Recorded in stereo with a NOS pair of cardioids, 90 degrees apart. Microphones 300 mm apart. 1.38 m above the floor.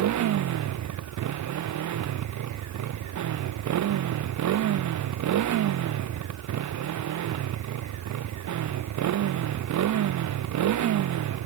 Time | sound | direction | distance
0.0 | a motorcycle | 70° right | ?